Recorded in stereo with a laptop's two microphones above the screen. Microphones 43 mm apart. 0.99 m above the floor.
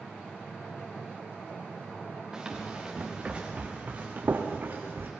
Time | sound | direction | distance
2.3 | running footsteps | 15° right (ahead or behind) | 4.5 m